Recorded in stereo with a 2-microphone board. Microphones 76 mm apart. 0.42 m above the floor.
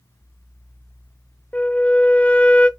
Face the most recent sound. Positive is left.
turn(degrees=20)  # may be behind; listen again after turning